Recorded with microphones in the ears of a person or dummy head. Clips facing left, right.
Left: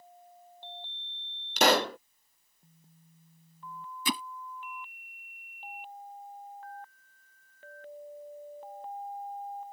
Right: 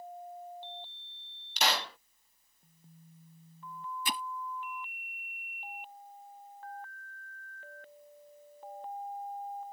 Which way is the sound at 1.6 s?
35° left (ahead or behind).